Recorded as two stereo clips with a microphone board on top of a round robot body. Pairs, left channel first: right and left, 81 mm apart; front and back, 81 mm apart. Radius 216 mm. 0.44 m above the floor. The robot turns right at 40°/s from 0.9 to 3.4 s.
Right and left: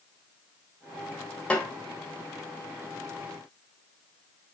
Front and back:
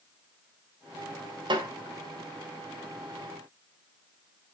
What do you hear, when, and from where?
1.5 s a snare drum: 165° right, 2 m; by 1.7 s 155° right, 2 m